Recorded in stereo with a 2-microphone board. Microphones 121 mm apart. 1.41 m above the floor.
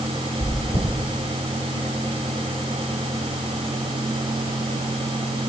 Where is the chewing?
80° left, 6.5 m.